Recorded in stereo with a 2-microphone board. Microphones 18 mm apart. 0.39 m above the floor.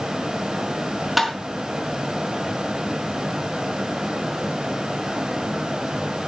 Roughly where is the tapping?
Centre.